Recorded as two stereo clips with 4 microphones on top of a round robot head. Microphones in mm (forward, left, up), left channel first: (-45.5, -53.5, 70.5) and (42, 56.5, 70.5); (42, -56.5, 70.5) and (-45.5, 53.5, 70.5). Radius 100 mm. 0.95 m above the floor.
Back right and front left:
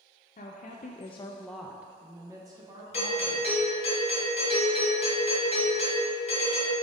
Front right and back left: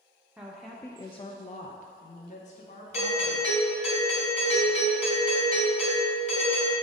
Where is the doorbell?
90° right, 2.5 m.